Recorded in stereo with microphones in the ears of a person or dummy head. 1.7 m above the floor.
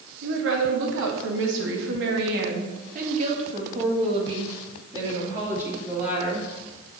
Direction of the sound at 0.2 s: 75° right (ahead or behind).